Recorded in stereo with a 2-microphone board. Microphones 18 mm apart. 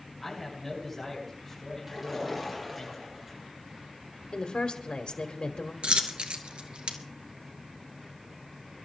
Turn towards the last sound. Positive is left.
turn(degrees=-80)